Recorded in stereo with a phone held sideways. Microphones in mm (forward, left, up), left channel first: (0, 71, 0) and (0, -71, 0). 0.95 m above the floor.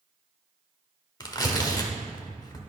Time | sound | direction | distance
1.2 | tearing paper | 30° left (ahead or behind) | 1.0 m